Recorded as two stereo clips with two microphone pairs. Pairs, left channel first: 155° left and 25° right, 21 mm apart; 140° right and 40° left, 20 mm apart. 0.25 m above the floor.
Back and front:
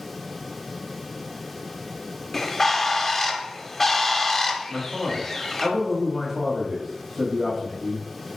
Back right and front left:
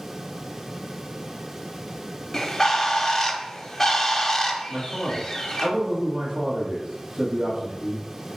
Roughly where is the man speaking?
Ahead left.